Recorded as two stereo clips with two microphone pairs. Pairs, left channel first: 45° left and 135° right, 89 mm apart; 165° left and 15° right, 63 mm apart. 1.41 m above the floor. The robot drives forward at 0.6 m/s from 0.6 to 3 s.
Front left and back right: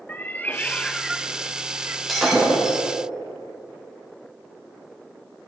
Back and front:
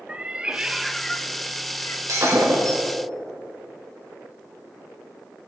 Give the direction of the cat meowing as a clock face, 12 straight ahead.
11 o'clock.